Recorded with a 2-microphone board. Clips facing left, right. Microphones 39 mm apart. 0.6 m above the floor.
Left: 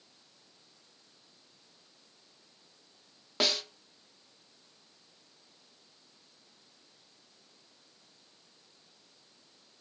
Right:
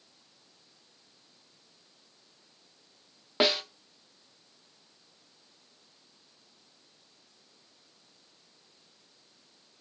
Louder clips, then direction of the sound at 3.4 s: Right 5 dB; 20° right (ahead or behind).